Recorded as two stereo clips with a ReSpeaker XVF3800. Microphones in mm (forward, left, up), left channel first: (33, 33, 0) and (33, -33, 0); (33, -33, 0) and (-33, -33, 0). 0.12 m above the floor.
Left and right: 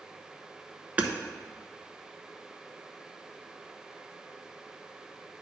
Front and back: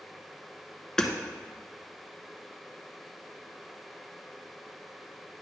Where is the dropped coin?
I don't hear a dropped coin.